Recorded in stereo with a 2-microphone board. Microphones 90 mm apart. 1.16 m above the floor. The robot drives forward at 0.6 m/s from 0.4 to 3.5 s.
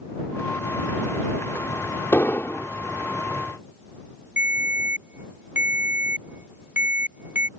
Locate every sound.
2.1 s an explosion: 30° left (ahead or behind)
4.4 s a ringtone: 25° right (ahead or behind)